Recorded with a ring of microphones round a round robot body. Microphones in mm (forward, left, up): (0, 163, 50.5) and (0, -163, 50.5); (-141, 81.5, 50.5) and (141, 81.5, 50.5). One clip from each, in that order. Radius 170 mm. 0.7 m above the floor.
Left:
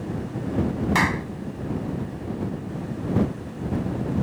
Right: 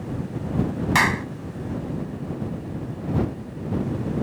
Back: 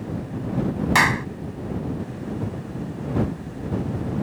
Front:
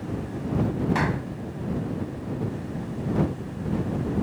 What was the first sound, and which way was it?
A clap, 160° right.